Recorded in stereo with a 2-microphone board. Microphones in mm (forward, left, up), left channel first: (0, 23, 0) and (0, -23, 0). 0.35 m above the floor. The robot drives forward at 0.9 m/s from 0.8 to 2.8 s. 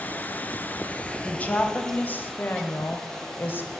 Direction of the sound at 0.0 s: 45° left (ahead or behind).